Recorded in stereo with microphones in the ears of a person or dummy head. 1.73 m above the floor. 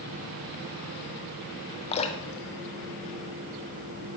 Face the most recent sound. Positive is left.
turn(degrees=30)  # may be behind; listen again after turning